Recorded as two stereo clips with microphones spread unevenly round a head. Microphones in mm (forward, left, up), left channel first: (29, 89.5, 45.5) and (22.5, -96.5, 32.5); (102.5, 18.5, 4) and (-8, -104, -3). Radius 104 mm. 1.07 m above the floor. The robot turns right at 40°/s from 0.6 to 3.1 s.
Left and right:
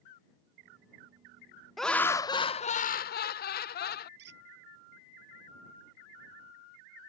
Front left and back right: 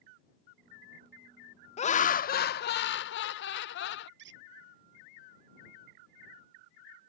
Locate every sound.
1.8 s laughter: 5° right; by 4.1 s 50° left
4.2 s a squeak: 130° right